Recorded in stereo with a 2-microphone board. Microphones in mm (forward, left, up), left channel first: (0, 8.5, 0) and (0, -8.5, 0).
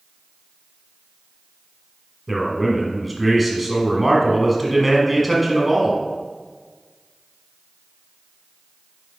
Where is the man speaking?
Centre (ahead or behind), 1.5 m.